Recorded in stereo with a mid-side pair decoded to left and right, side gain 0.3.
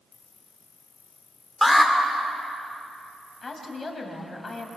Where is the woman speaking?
45° left, 6 m.